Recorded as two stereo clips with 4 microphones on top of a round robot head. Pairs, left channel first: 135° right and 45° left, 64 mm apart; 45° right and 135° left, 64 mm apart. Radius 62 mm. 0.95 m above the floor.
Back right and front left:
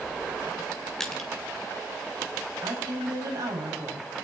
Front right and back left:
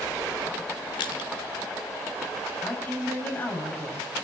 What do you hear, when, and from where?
1.0 s crushing: 50° right, 2 m
2.6 s a woman speaking: 20° left, 5.5 m